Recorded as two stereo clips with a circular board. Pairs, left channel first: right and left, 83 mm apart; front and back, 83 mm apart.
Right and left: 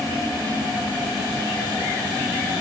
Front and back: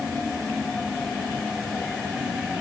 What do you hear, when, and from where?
Only background noise.